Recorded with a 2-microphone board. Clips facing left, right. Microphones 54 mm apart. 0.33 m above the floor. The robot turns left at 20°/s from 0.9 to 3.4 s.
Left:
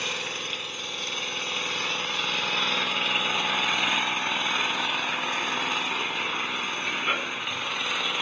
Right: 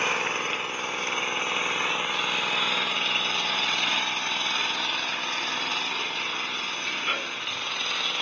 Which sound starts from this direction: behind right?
An engine running, at 0.0 s.